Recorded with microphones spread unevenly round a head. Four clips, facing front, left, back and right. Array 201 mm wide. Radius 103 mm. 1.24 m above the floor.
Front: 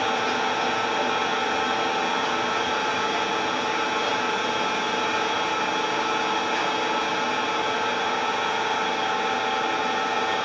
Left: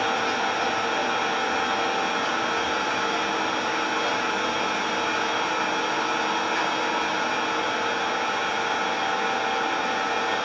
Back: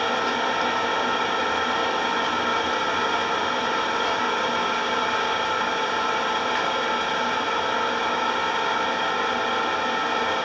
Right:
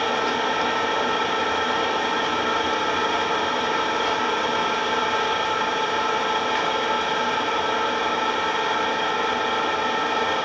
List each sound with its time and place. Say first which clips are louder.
0.0 s an engine running: right 2 dB, even; 130° right, 1.1 m